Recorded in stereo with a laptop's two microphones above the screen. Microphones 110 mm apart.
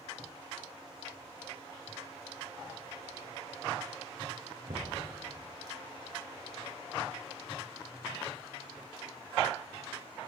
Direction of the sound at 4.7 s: 60° right (ahead or behind).